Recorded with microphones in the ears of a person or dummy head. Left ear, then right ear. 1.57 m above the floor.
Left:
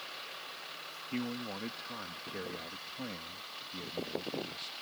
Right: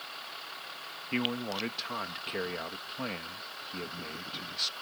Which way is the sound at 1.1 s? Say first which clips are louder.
Right 8 dB; 45° right (ahead or behind).